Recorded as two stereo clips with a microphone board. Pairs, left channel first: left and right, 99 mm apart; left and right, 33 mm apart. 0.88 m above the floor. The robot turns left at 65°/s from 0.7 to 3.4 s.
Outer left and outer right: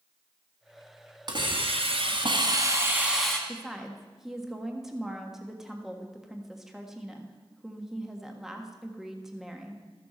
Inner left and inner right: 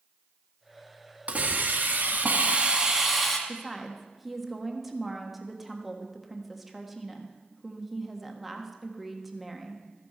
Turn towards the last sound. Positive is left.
turn(degrees=-5)  # may be behind; listen again after turning